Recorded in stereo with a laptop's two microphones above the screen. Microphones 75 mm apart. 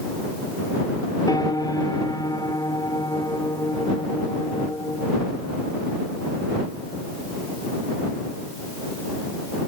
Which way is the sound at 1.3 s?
65° left (ahead or behind).